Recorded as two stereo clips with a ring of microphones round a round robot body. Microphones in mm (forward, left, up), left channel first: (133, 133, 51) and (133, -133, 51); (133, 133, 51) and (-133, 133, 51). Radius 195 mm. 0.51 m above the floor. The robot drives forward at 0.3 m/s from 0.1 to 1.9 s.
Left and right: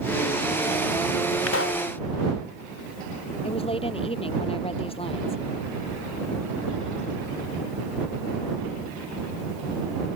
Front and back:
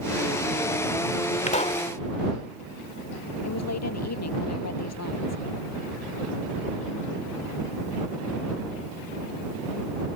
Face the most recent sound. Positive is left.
turn(degrees=20)